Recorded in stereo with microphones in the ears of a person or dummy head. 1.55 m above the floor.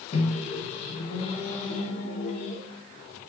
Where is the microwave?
35° left (ahead or behind), 0.7 m.